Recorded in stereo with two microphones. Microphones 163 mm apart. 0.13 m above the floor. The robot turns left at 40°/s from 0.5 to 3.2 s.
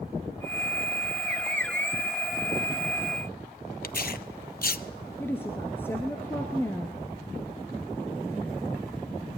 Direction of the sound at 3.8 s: 60° left (ahead or behind).